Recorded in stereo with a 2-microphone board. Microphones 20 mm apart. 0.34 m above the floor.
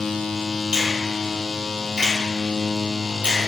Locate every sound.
0.7 s a finger snap: 45° right (ahead or behind), 1.7 m